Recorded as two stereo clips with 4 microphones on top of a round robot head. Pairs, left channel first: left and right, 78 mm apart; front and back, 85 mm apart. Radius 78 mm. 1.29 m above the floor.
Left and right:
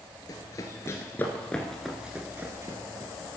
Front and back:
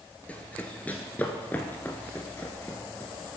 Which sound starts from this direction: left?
Running footsteps, at 0.3 s.